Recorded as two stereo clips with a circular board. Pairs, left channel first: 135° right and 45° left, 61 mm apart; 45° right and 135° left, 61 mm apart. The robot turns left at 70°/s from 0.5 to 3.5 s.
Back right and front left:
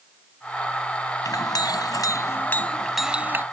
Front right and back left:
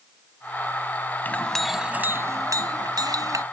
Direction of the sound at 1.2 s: 105° right.